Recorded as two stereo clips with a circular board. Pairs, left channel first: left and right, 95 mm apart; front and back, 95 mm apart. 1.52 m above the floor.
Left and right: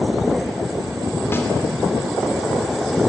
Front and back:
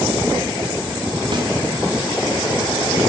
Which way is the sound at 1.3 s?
155° left.